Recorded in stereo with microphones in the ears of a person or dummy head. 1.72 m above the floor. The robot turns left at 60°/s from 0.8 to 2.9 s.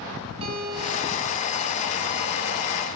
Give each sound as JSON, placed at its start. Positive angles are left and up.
{"t": 0.4, "sound": "a guitar", "azimuth_deg": -30, "distance_m": 7.5}